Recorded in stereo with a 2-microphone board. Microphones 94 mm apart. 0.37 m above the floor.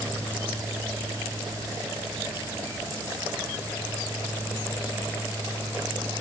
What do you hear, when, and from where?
Only background noise.